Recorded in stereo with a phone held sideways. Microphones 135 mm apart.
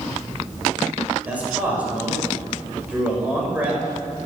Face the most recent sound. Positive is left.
turn(degrees=-10)  # may be behind; listen again after turning